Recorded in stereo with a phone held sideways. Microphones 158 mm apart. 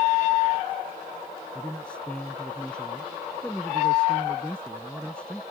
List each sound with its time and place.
1.6 s a man speaking: 5° left (ahead or behind)